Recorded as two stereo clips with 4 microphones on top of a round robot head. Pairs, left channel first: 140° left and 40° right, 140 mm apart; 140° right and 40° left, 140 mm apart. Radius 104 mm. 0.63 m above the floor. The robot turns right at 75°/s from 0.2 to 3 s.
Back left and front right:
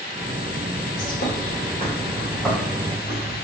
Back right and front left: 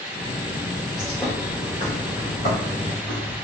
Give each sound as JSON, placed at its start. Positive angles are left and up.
{"t": 1.0, "sound": "a bird", "azimuth_deg": 125, "distance_m": 1.3}